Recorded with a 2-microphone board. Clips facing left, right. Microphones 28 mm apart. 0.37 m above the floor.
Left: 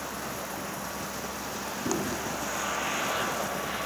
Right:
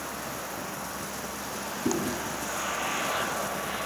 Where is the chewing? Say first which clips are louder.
Right 2 dB; 50° right (ahead or behind), 6.5 m.